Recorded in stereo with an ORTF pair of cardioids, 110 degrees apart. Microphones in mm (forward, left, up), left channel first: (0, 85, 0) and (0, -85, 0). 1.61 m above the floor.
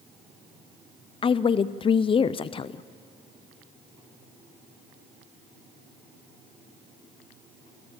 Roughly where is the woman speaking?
Ahead left.